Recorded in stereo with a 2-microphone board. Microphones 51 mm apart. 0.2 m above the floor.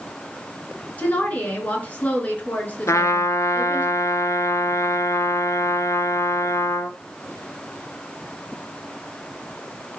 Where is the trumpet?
75° left (ahead or behind), 0.8 m.